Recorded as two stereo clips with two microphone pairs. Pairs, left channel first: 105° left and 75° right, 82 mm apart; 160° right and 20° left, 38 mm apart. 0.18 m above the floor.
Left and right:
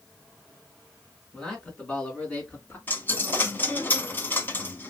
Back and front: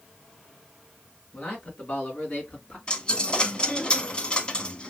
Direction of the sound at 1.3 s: 175° right.